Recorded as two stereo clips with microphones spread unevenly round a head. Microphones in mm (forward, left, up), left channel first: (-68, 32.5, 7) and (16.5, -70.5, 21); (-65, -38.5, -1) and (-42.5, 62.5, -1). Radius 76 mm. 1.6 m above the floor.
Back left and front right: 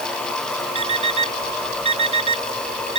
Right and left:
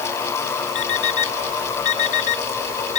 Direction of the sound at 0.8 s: 95° right.